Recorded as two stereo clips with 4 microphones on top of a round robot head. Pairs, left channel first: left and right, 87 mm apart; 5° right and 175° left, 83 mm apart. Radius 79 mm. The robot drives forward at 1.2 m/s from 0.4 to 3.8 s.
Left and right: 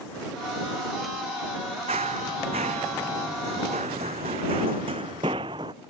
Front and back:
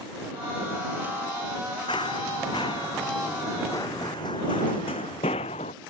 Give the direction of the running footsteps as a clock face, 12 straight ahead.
2 o'clock.